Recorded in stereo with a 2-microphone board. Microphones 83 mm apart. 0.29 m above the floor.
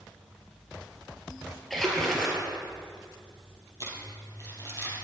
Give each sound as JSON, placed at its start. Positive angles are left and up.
{"t": 1.7, "sound": "a splash", "side_deg": 5, "distance_m": 3.0}
{"t": 3.8, "sound": "crumpling", "side_deg": 45, "distance_m": 3.5}